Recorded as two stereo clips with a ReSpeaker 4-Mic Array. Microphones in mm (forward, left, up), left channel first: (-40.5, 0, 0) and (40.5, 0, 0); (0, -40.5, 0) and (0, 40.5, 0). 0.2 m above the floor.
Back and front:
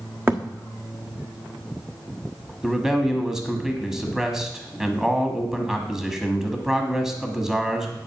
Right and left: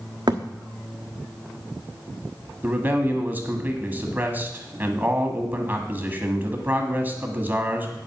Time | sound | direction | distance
0.3 | a thud | 65° left | 1.2 m
2.6 | a man speaking | 75° left | 1.2 m